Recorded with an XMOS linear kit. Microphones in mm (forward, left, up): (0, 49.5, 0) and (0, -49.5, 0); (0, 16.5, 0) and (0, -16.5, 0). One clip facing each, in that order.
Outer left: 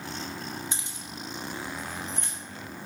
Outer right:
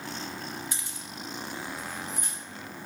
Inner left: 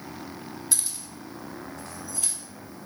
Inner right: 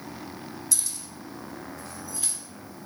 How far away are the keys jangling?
About 0.7 m.